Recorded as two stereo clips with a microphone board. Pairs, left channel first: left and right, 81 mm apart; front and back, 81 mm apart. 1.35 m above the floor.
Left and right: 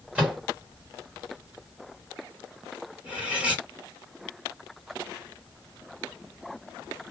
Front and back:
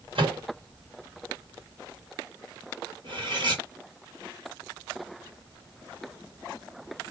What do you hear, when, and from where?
0.1 s a microwave: 165° right, 1.6 m
3.0 s cutlery clinking: 160° right, 1.7 m